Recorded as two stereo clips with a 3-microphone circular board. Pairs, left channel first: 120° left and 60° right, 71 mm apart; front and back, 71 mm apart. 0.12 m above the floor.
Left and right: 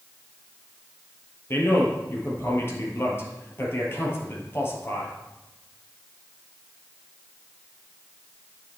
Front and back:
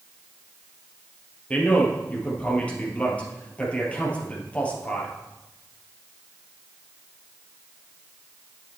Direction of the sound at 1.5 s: 70° left.